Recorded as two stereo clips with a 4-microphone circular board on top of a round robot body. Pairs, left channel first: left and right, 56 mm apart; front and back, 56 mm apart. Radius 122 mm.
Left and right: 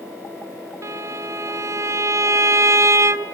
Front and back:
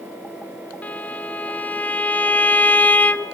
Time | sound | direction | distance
0.8 | a violin | 65° right | 0.6 m